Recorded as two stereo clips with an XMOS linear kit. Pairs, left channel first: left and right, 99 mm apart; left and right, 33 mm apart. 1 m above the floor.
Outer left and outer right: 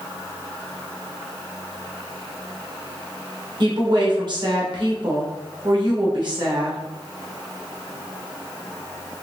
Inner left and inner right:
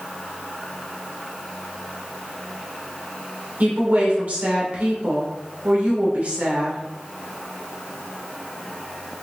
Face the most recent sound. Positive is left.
turn(degrees=-50)  # may be behind; listen again after turning